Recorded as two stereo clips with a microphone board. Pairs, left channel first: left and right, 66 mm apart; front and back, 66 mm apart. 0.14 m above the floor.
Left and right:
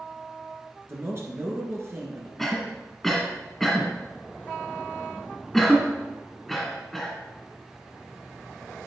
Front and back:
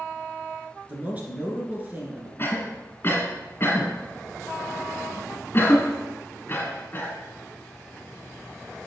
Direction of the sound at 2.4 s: 5° left.